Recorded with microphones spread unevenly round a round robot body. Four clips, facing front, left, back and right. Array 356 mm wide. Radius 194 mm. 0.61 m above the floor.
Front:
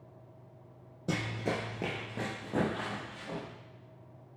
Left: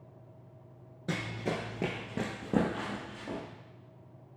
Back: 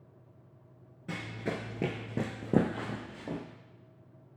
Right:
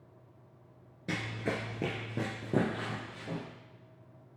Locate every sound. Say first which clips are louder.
1.1 s running footsteps: left 1 dB, front 3 dB; straight ahead, 0.6 m; by 3.4 s straight behind, 1.9 m